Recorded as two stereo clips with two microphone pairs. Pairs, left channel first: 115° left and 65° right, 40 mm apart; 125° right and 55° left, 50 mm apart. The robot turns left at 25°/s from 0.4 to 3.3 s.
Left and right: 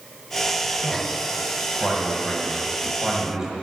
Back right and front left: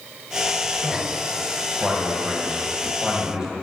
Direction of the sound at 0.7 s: 60° left.